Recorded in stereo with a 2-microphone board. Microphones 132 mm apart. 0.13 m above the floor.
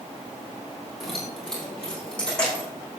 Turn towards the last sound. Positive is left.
turn(degrees=10)  # may be behind; listen again after turning